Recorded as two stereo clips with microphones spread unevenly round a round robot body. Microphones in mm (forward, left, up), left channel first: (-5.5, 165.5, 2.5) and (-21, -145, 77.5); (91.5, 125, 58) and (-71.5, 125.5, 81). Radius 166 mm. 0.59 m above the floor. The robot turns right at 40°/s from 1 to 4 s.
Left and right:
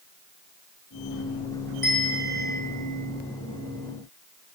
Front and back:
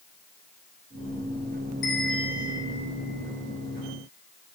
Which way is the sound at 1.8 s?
5° right.